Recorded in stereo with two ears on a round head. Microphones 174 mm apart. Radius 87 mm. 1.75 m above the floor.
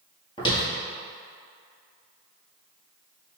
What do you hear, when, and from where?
0.4 s footsteps: 25° left (ahead or behind), 1.9 m